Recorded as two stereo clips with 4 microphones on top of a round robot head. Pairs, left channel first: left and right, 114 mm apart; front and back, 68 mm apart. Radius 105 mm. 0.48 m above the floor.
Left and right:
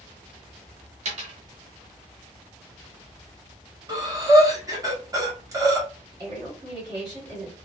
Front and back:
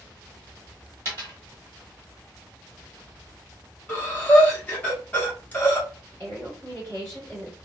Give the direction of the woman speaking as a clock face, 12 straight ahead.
2 o'clock.